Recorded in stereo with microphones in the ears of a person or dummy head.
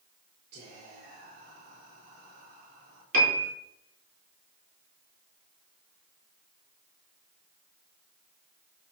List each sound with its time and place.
0.5 s whispering: 60° right (ahead or behind), 3.5 m
3.1 s a piano: 60° right (ahead or behind), 4.5 m